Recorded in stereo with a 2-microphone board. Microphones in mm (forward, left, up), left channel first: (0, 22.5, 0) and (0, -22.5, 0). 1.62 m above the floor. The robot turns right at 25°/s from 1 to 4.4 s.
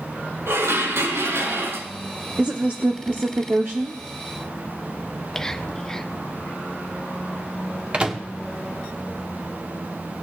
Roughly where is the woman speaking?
Behind right.